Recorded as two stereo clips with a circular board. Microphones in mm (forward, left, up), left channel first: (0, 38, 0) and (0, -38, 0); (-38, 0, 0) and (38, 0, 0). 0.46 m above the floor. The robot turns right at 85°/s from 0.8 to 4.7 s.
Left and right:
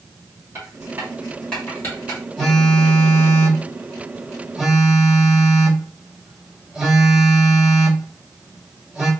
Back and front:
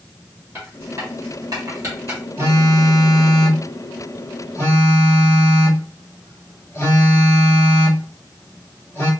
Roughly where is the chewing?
I don't hear chewing.